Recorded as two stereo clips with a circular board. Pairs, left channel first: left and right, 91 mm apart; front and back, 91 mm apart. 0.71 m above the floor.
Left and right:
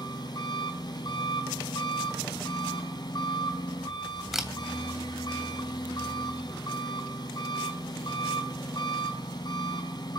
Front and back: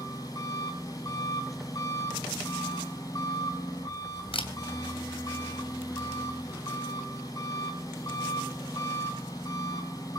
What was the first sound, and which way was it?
An engine running, 45° left.